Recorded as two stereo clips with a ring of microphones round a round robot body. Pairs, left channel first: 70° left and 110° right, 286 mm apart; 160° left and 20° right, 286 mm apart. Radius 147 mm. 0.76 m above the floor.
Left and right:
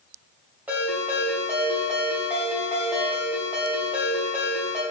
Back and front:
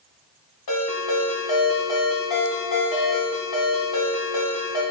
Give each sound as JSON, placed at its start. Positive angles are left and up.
{"t": 0.7, "sound": "a ringtone", "azimuth_deg": 165, "distance_m": 3.0}